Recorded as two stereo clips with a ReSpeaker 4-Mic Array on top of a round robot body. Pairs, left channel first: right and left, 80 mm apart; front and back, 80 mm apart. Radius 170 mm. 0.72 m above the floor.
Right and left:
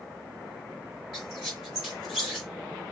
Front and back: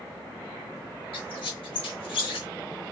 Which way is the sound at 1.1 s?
5° left.